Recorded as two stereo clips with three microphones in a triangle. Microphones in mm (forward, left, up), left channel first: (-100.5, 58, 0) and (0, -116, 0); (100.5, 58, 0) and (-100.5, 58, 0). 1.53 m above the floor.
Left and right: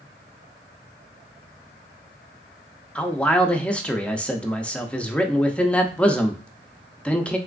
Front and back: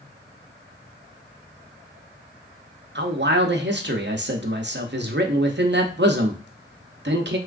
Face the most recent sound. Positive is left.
turn(degrees=-155)